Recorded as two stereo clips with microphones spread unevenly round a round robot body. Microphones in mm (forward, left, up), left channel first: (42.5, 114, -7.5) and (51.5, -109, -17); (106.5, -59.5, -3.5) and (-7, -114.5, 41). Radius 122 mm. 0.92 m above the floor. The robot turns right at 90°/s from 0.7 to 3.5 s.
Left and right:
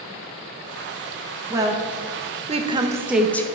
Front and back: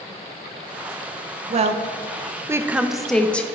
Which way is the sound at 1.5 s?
155° right.